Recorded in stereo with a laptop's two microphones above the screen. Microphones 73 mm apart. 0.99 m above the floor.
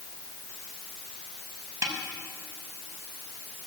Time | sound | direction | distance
1.8 | a snare drum | 45° right (ahead or behind) | 5.5 m